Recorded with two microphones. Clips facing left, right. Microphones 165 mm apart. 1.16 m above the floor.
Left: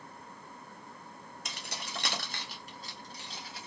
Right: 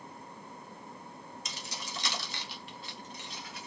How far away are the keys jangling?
About 0.6 m.